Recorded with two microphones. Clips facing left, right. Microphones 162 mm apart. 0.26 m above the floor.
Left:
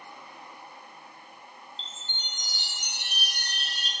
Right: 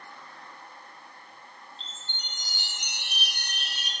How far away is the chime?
About 0.7 m.